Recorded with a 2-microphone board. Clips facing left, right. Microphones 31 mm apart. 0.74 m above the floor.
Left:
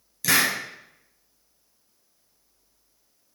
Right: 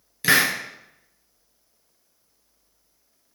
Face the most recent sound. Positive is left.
turn(degrees=-35)  # may be behind; listen again after turning